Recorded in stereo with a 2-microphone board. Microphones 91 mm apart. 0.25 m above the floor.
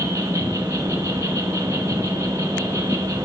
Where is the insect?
35° right (ahead or behind), 2.5 m.